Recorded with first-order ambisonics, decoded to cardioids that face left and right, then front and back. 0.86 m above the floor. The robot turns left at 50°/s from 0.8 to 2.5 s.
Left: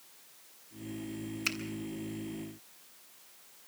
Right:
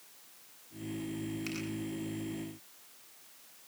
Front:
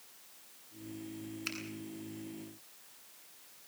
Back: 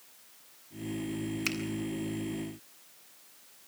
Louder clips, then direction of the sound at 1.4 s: Left 11 dB, back 7 dB; 150° left.